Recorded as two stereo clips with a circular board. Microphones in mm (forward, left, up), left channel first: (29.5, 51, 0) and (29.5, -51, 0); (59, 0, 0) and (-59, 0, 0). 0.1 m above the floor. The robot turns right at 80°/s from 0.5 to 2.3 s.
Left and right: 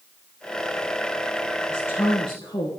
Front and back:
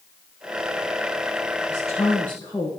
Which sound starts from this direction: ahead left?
A woman speaking, at 1.7 s.